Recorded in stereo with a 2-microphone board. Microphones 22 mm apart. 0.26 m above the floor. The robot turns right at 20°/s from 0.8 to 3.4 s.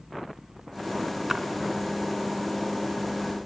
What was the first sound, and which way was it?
A splash, 10° right (ahead or behind).